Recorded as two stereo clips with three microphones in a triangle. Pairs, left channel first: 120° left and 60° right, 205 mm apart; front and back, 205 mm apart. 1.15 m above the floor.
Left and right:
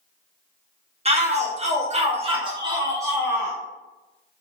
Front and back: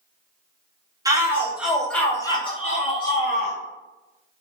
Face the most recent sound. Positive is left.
turn(degrees=20)